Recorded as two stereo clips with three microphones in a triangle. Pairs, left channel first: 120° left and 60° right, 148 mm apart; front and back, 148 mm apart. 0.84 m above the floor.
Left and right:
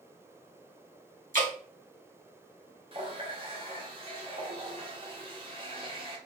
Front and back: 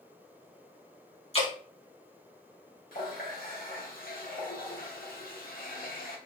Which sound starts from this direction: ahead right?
Dripping, at 1.3 s.